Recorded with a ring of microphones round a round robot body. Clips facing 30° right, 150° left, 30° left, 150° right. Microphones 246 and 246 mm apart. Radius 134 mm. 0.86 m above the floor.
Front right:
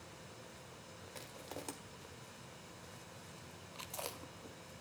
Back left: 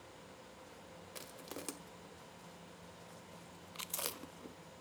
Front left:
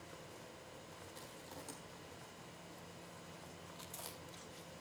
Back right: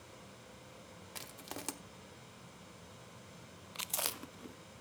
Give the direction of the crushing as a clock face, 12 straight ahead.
5 o'clock.